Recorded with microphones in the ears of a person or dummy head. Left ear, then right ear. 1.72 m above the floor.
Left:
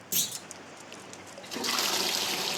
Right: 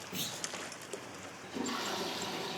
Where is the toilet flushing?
70° left (ahead or behind), 0.9 m.